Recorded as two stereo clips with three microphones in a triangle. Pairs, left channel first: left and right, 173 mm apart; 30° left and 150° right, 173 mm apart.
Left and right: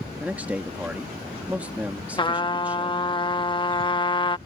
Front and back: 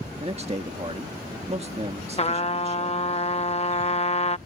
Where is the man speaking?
165° right.